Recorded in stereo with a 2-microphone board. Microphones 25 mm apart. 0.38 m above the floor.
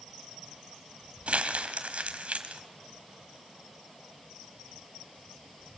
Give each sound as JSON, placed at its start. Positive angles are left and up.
{"t": 1.3, "sound": "crumpling", "side_deg": -55, "distance_m": 1.4}